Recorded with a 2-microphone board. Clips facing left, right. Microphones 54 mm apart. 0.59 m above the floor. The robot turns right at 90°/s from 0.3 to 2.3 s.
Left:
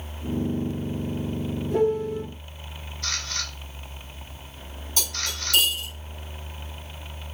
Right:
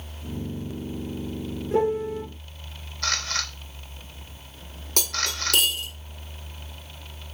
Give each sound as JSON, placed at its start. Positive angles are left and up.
{"t": 1.7, "sound": "a piano", "azimuth_deg": -40, "distance_m": 1.9}
{"t": 3.0, "sound": "a camera shutter", "side_deg": -85, "distance_m": 0.7}
{"t": 5.0, "sound": "cutlery clinking", "side_deg": -65, "distance_m": 0.8}